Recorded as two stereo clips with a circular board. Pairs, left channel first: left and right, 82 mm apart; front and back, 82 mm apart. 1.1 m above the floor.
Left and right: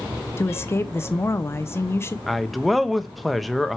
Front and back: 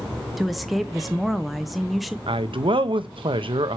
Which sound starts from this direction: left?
A woman speaking, at 0.4 s.